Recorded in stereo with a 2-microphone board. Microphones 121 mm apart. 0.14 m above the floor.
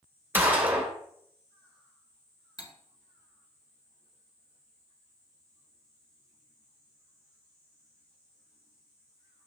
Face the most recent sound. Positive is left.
turn(degrees=40)  # may be behind; listen again after turning